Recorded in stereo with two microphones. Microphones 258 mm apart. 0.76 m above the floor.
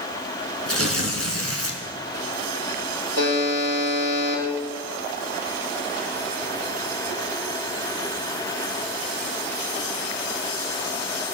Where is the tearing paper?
65° right (ahead or behind), 2.5 m.